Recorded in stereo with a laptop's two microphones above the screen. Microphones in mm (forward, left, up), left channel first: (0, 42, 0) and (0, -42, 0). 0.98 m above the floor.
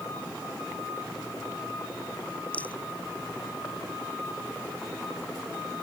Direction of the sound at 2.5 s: 15° left (ahead or behind).